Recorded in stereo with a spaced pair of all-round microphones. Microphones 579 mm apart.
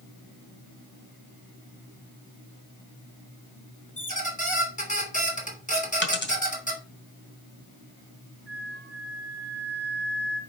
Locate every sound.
4.0 s a squeak: 15° left (ahead or behind), 2 m
6.0 s a dropped coin: 20° left (ahead or behind), 1.9 m
8.5 s a flute: 20° right (ahead or behind), 5.5 m